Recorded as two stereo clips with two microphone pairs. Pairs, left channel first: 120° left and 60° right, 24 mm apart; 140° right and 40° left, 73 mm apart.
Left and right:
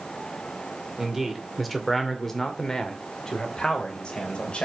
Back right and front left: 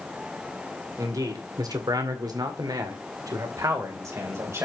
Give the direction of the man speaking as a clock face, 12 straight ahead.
11 o'clock.